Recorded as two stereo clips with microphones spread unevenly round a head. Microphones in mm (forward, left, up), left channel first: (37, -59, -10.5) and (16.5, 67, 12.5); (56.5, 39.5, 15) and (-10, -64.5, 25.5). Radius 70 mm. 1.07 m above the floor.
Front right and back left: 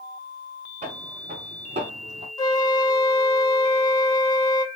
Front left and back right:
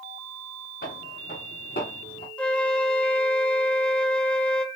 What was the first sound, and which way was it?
Footsteps, 75° left.